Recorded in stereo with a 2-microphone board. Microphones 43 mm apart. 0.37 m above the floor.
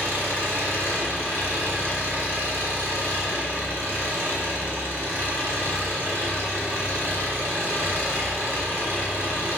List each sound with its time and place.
0.0 s an engine running: 70° right (ahead or behind), 0.7 m